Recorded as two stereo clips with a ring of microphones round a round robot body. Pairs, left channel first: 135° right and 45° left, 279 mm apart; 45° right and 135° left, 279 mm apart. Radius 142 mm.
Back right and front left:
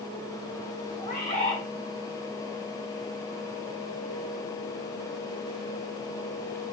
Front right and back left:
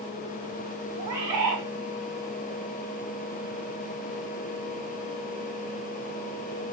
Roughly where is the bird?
Behind left.